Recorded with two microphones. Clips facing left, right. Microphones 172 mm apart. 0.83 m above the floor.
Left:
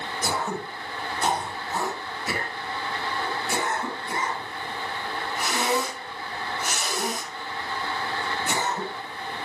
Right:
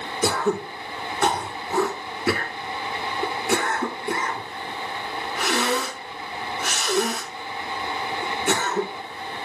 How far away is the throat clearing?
About 4 m.